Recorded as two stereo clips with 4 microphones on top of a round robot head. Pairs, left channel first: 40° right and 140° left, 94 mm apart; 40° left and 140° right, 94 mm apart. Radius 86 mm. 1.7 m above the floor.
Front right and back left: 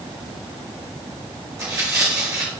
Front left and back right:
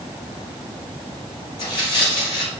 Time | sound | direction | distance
1.6 | tearing paper | 80° left | 1.6 m